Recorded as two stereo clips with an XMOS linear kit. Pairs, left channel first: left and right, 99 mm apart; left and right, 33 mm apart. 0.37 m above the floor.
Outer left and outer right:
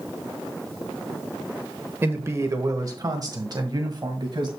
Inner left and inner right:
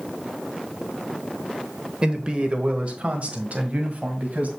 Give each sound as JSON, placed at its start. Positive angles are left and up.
{"t": 2.0, "sound": "a man speaking", "side_deg": -25, "distance_m": 1.1}